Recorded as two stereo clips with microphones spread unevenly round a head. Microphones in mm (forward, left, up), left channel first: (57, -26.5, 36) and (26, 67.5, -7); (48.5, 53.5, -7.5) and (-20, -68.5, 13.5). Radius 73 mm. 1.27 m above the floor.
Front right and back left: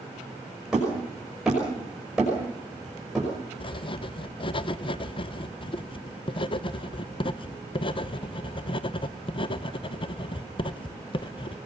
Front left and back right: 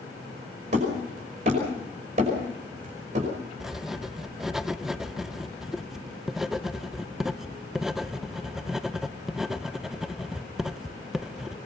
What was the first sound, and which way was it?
Hammering, 165° right.